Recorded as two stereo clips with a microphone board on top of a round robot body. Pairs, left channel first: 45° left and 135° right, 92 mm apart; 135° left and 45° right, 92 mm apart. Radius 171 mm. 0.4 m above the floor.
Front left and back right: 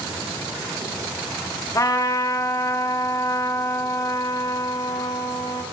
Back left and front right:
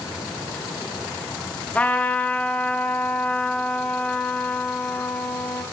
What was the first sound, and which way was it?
A trumpet, 70° left.